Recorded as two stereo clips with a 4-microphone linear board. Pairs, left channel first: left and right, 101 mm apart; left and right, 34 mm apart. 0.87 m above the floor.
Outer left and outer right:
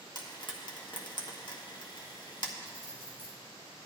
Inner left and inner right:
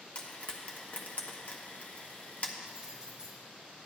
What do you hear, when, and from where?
0.1 s frying: 50° left (ahead or behind), 1.2 m
2.6 s keys jangling: 25° right (ahead or behind), 3 m